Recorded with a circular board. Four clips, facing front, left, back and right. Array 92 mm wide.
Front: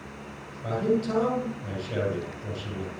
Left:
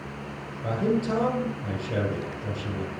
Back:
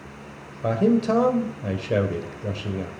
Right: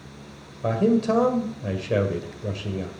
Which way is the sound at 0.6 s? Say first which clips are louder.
Right 5 dB, back 6 dB; 145° right.